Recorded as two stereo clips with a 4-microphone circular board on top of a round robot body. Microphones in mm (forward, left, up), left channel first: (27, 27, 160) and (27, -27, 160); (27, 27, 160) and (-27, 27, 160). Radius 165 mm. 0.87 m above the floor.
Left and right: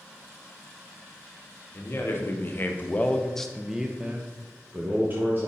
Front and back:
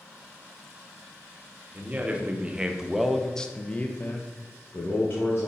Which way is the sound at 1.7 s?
125° left.